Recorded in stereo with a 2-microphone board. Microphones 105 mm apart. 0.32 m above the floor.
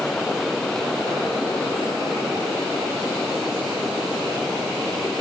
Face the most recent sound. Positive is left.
No sound to turn to.